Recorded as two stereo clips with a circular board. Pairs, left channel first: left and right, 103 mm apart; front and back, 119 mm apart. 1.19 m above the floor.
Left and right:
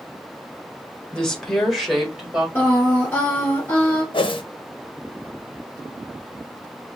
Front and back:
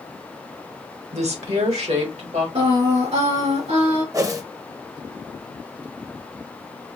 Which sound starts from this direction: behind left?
A whoosh, at 4.1 s.